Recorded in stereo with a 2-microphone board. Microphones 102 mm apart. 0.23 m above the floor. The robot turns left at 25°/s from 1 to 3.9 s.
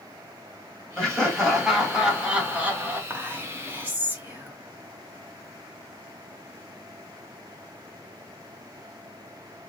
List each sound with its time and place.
1.0 s laughter: 5° left (ahead or behind), 1.8 m; by 3.0 s 20° right (ahead or behind), 1.8 m
3.1 s whispering: 20° right (ahead or behind), 1.4 m